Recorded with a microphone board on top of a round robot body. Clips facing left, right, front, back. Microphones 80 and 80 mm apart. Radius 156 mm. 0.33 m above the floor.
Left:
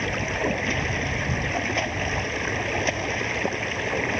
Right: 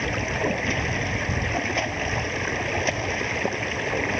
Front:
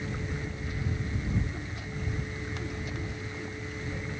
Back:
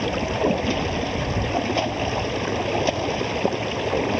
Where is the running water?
Straight behind.